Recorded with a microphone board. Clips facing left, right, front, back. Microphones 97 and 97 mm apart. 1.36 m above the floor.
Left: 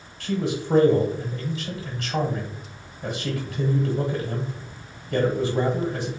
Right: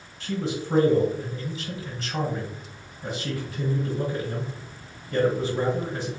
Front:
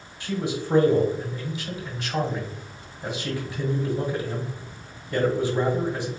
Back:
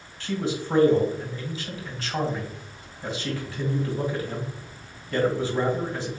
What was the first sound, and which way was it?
A man speaking, 70° left.